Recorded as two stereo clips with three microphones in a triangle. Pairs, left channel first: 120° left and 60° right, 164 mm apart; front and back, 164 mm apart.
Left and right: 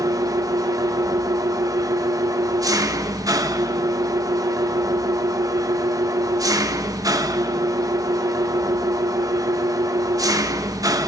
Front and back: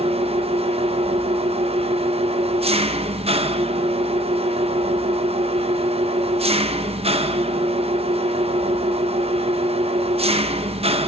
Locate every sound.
0.0 s an engine running: 125° right, 0.8 m